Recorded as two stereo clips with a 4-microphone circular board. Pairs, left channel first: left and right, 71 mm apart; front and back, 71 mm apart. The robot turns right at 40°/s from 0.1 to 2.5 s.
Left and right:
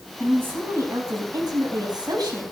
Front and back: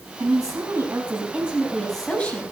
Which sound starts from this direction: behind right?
A woman speaking, at 0.2 s.